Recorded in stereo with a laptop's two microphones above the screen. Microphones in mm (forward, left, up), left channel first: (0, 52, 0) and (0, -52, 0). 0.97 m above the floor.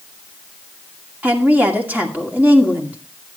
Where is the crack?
I don't hear a crack.